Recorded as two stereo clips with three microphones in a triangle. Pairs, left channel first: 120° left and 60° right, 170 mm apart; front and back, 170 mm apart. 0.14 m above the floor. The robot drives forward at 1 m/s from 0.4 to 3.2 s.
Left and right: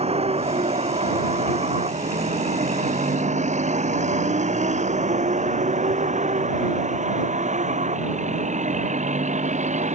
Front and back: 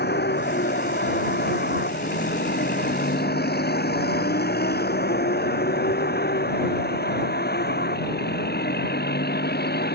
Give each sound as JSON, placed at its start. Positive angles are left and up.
{"t": 0.0, "sound": "a vehicle", "azimuth_deg": -10}